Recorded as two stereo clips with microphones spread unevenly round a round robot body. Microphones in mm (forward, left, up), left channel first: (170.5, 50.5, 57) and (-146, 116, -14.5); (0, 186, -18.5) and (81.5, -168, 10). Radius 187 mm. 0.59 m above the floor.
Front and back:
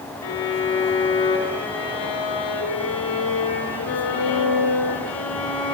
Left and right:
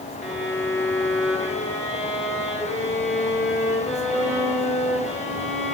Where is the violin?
10° left, 4 m.